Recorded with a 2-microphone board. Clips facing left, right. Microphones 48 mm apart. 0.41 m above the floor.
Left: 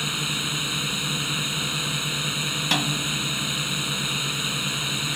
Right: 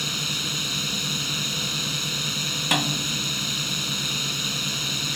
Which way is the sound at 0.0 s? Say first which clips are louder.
Left 1 dB; 20° left (ahead or behind).